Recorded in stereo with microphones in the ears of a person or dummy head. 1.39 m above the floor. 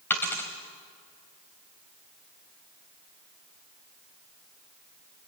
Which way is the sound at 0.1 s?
15° left (ahead or behind).